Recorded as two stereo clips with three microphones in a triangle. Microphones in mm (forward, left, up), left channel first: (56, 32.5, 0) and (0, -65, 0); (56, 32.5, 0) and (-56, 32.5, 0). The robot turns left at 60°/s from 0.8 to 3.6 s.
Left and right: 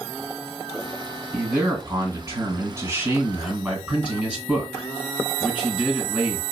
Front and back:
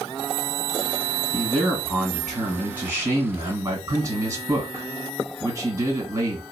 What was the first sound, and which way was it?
A man speaking, 45° right.